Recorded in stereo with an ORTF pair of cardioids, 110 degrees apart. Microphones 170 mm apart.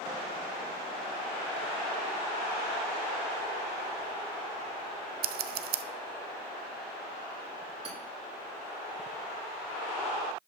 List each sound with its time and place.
5.2 s scissors: 65° right, 0.6 m
7.8 s hammering: 35° right, 3 m